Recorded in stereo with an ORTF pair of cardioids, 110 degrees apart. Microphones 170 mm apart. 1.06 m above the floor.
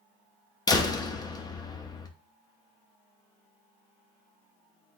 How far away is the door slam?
About 0.6 m.